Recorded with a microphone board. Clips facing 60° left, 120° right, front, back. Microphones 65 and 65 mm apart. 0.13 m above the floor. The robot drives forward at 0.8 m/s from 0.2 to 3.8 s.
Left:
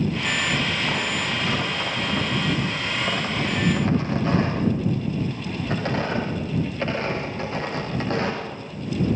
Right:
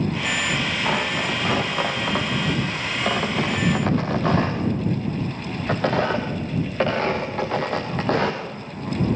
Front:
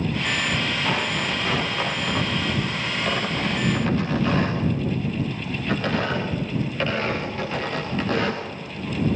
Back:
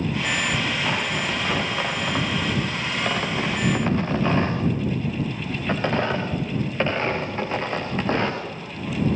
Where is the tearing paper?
95° right, 5 m; by 9.2 s 120° right, 6 m.